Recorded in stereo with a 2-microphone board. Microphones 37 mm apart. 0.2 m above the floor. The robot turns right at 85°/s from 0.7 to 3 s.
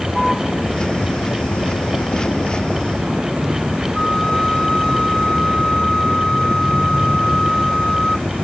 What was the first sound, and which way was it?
A vehicle, straight ahead.